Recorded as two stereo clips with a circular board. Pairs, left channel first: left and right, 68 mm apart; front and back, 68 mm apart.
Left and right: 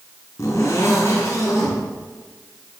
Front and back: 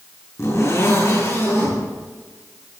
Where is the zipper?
45° left, 7.5 m.